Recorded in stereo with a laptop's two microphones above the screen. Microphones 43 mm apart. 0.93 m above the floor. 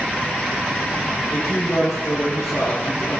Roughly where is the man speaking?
Left.